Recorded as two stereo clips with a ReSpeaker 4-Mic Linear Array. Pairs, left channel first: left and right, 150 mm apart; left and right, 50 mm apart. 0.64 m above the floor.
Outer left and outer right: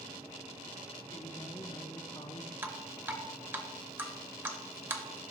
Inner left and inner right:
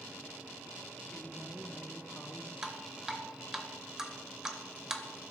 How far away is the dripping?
About 0.7 m.